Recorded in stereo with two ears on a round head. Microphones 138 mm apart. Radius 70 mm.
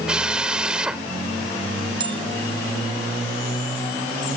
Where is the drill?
5° right (ahead or behind).